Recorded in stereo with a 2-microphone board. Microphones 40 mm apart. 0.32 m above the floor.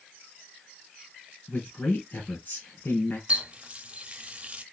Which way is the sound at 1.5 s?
50° left (ahead or behind).